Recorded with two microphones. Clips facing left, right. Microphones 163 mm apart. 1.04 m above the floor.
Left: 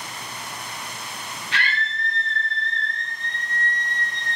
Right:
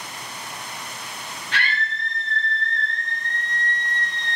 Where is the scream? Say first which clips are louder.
Right 1 dB; 55° right (ahead or behind), 1.5 m; by 4.4 s 80° right, 3 m.